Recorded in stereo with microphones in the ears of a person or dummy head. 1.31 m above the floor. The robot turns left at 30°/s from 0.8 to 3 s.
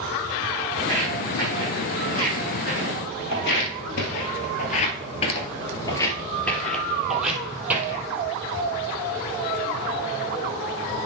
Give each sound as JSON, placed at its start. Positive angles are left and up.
{"t": 0.8, "sound": "footsteps", "side_deg": 0, "distance_m": 4.5}